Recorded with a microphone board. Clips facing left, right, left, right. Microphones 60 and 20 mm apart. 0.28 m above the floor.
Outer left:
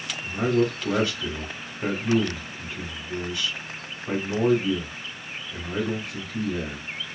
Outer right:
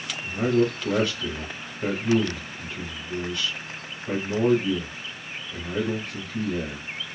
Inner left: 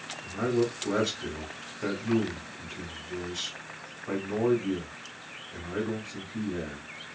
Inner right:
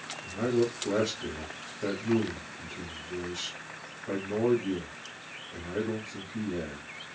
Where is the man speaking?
10° left (ahead or behind), 1.0 m.